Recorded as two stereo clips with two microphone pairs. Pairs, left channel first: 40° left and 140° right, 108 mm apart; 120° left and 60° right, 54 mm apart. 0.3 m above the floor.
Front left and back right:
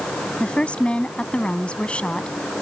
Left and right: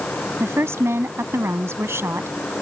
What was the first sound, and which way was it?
A woman speaking, 40° right.